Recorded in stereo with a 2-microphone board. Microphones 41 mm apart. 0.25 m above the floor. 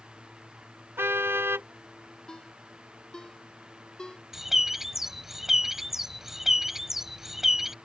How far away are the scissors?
No scissors in this recording.